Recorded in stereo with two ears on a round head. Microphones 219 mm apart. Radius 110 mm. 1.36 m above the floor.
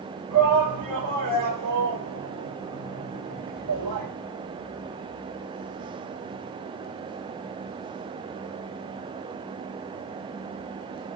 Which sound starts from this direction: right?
A shout, at 0.3 s.